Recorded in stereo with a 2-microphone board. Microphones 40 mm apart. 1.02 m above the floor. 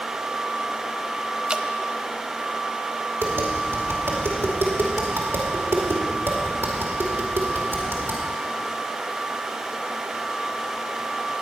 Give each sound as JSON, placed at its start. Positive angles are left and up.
{"t": 1.5, "sound": "dripping", "side_deg": -20, "distance_m": 0.6}
{"t": 3.2, "sound": "tapping", "side_deg": -80, "distance_m": 2.5}